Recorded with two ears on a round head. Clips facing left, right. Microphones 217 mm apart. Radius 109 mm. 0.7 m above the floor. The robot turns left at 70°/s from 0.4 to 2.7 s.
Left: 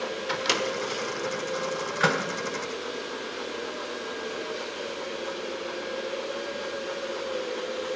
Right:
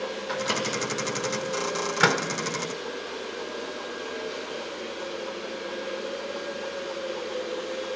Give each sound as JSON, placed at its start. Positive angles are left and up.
{"t": 0.3, "sound": "a microwave", "side_deg": 50, "distance_m": 1.4}